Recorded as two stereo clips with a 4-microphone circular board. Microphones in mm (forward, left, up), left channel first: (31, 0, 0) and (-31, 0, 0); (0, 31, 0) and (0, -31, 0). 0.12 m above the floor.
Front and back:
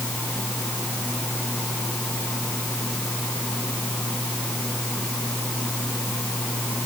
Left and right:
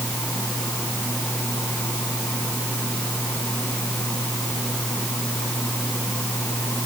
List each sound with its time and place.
Only background noise.